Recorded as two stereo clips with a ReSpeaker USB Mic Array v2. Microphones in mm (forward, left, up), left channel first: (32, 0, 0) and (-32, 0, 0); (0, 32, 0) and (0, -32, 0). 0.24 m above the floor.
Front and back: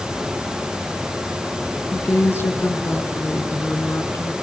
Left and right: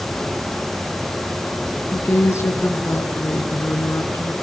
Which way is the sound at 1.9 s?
50° left.